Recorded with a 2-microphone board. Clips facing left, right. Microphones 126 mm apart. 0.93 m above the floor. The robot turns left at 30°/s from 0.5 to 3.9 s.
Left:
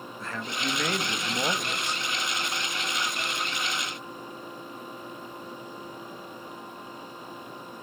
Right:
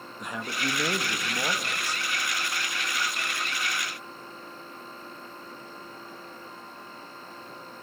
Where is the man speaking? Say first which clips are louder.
Right 1 dB; 165° right, 1.2 m; by 2.0 s 150° left, 1.2 m.